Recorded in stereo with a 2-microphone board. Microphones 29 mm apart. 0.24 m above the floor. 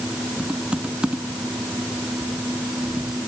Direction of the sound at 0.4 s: 35° right (ahead or behind).